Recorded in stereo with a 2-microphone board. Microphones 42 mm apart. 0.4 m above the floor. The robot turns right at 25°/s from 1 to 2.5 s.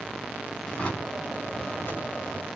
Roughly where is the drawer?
Ahead left.